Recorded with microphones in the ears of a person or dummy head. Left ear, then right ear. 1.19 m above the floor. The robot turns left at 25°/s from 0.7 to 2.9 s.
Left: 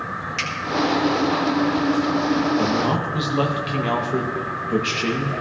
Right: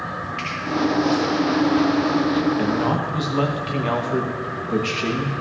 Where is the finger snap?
50° left (ahead or behind), 2.0 m.